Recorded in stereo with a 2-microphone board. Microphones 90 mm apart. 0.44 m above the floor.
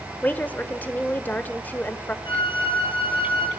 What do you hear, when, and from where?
0.2 s a woman speaking: 20° left (ahead or behind), 1.1 m
2.2 s a flute: 70° left (ahead or behind), 3 m